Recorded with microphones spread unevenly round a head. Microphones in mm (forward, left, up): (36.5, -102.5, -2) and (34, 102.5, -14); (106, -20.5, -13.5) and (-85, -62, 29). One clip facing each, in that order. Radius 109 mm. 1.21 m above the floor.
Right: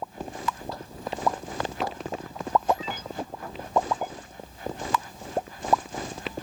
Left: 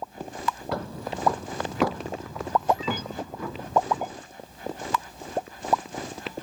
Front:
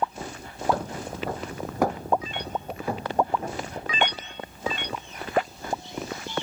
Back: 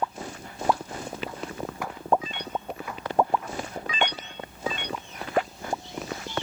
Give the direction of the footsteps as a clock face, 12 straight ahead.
10 o'clock.